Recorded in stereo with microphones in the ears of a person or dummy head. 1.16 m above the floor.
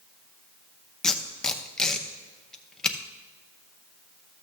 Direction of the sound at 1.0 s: 5° left (ahead or behind).